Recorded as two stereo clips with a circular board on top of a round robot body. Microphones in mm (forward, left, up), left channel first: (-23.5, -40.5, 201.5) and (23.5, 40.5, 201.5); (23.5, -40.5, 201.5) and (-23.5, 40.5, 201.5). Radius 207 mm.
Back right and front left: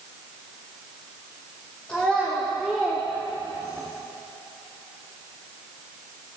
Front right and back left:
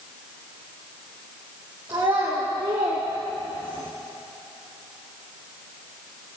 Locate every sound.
1.9 s a child speaking: 160° left, 2.5 m; by 3.9 s 120° left, 1.3 m